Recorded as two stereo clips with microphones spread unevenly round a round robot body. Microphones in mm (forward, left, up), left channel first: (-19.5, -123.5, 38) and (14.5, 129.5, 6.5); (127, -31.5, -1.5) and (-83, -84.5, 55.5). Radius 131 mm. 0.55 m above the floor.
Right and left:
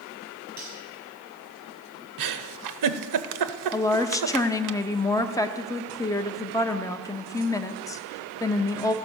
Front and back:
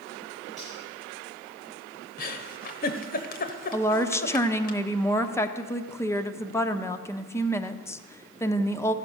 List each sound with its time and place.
0.6 s cutlery clinking: 105° left, 8.5 m
2.2 s a giggle: 70° left, 0.8 m
3.7 s a woman speaking: 20° right, 0.8 m